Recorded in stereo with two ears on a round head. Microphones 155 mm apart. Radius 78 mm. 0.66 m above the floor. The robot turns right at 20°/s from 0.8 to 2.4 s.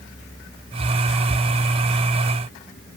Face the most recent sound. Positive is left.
No sound to turn to.